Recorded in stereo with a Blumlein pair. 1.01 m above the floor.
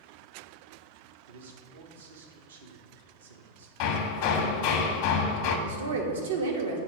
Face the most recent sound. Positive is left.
turn(degrees=-70)